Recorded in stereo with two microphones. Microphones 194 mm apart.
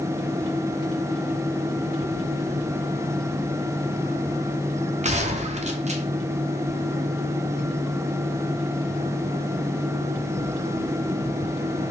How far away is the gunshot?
About 0.5 m.